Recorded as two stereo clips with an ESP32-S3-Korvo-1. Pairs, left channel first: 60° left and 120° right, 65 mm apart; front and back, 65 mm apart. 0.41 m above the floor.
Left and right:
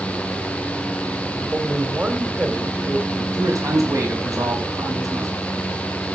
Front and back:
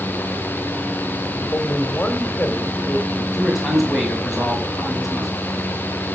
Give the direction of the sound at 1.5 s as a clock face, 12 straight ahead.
2 o'clock.